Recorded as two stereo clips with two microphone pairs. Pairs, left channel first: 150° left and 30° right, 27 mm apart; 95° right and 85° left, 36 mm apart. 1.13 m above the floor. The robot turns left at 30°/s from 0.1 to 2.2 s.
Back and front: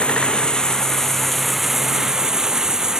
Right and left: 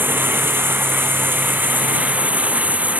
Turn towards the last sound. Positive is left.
turn(degrees=40)